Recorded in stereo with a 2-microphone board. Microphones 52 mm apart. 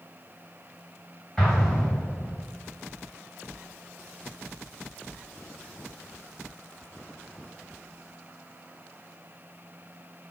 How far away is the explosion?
About 2.5 m.